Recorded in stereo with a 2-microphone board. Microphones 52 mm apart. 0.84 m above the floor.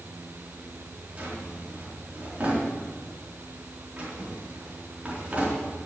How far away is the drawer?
About 4 m.